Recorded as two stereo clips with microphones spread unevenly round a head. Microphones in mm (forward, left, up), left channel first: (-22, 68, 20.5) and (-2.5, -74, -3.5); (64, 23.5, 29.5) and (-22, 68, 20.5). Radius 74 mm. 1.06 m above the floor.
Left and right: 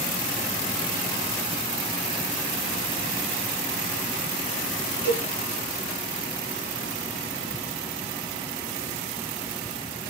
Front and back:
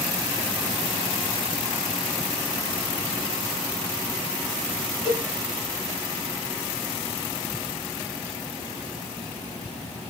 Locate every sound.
5.0 s a cowbell: 130° right, 1.8 m